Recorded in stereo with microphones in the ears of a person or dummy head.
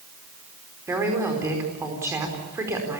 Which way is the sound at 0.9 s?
15° right (ahead or behind).